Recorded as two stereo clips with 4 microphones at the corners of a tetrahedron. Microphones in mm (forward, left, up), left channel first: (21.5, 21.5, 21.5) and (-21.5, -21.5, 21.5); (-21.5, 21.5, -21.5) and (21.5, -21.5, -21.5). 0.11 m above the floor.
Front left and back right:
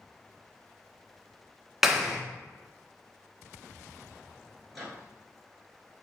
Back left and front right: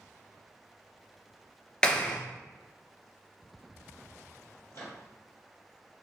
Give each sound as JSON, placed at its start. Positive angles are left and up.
{"t": 1.8, "sound": "a clap", "azimuth_deg": 155, "distance_m": 0.8}
{"t": 4.7, "sound": "a microwave", "azimuth_deg": 135, "distance_m": 1.7}